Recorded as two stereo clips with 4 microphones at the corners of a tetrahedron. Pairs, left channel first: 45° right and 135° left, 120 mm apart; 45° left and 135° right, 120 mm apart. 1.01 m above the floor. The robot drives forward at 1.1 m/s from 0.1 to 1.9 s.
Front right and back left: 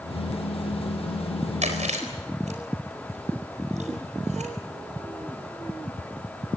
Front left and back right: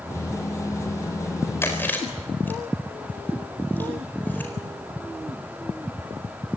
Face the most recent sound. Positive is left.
turn(degrees=120)